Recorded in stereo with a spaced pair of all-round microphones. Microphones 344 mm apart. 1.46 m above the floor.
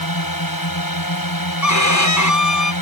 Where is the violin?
55° left (ahead or behind).